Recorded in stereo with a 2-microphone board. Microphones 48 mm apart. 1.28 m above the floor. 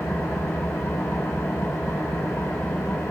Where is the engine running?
75° left (ahead or behind), 8.5 m.